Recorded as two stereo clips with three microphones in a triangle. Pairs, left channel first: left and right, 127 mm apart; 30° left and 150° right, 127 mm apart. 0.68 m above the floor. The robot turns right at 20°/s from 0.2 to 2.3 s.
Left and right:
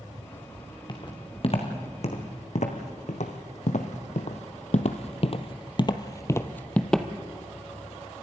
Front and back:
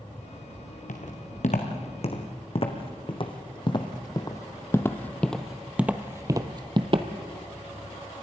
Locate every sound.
0.9 s footsteps: 35° left, 3 m; by 7.1 s straight behind, 1.2 m